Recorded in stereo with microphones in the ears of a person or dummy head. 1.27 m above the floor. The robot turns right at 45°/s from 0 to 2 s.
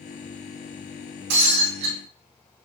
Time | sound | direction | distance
1.3 | breaking glass | 60° right (ahead or behind) | 3.5 m